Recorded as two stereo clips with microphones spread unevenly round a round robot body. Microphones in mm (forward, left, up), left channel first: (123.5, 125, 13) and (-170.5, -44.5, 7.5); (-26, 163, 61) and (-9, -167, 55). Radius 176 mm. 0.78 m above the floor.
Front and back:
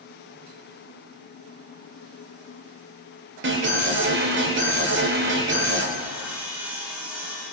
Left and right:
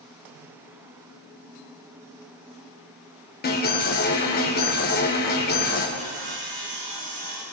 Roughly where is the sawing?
Ahead right.